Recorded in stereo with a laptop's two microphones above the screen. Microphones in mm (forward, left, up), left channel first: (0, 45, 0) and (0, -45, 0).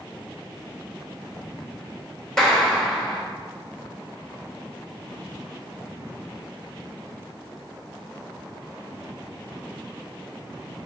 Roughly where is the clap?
Centre.